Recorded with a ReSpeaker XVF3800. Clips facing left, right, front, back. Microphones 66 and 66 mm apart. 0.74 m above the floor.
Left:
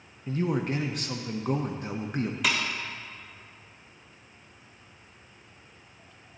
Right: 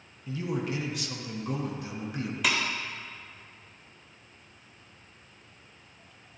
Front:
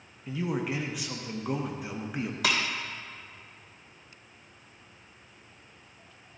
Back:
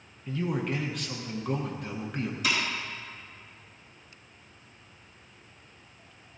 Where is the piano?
No piano in this recording.